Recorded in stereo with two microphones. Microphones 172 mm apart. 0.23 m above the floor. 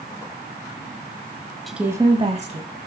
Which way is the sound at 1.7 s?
Centre (ahead or behind).